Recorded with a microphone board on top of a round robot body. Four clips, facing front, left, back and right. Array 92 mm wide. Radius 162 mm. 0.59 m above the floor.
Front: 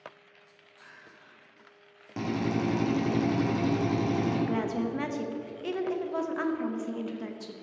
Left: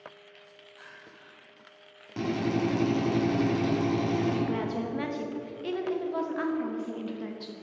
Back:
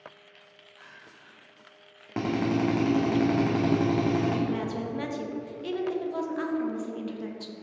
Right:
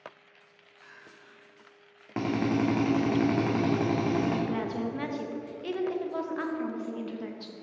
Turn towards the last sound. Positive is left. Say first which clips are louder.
# left 1 dB, front 1 dB
turn(degrees=0)